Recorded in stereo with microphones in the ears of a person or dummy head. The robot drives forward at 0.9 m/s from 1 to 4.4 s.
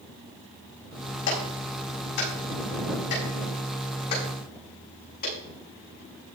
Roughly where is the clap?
Left.